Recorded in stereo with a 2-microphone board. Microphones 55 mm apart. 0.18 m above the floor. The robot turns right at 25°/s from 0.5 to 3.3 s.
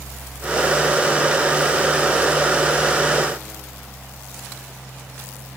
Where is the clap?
I don't hear a clap.